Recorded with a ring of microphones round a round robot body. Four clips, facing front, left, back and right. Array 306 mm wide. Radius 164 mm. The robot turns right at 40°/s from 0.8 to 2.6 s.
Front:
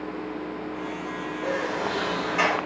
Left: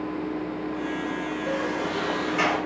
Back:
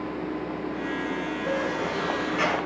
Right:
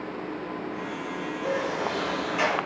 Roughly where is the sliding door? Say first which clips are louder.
Right 1 dB, front 1 dB; ahead.